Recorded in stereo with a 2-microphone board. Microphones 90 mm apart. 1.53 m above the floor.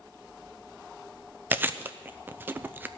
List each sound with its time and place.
1.5 s chewing: 20° right (ahead or behind), 0.6 m